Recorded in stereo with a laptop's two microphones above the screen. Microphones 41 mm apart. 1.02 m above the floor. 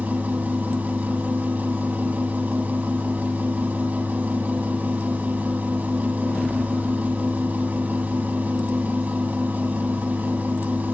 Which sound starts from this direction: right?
A machine running, at 0.0 s.